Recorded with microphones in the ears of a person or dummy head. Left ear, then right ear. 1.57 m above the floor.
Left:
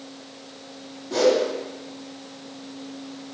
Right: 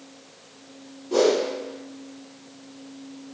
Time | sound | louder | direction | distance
1.1 | a whoosh | left 1 dB | 5° left (ahead or behind) | 1.7 m